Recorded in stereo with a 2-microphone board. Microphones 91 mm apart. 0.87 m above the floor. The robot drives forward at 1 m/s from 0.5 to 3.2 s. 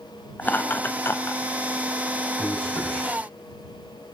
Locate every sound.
0.4 s laughter: 20° left (ahead or behind), 1.3 m; by 1.4 s 30° left (ahead or behind), 0.9 m
2.4 s a man speaking: 10° left (ahead or behind), 6 m; by 3.2 s 5° left (ahead or behind), 6.5 m